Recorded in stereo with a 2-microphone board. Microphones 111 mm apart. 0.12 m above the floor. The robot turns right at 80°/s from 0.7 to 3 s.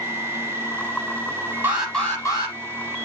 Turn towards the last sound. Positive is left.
turn(degrees=85)